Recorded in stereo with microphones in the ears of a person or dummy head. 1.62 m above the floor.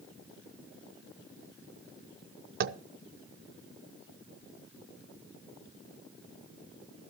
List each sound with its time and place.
2.6 s tapping: 55° right (ahead or behind), 0.5 m